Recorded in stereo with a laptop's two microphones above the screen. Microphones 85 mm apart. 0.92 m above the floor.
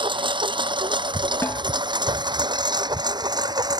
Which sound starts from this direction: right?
A lawn mower, at 0.0 s.